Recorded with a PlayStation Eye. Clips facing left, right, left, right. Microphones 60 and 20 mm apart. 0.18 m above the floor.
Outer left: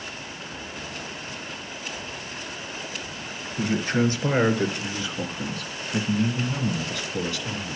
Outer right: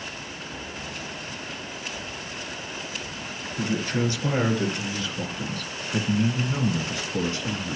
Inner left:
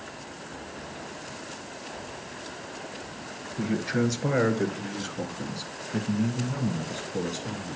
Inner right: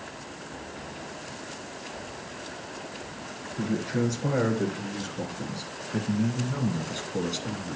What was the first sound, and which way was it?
A man speaking, 35° left (ahead or behind).